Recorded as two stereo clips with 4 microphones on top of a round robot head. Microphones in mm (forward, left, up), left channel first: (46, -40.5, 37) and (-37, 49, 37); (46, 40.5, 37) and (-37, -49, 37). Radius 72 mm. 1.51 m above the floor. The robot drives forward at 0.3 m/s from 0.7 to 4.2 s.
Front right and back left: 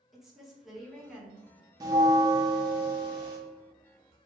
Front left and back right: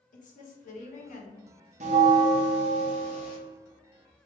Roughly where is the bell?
Behind.